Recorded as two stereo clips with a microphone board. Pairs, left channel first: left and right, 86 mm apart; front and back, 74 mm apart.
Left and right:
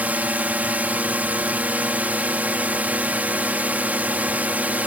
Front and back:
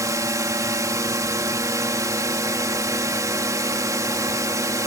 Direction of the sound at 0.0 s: 155° right.